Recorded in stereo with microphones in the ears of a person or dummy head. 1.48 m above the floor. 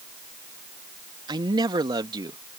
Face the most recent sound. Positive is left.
turn(degrees=-20)  # may be behind; listen again after turning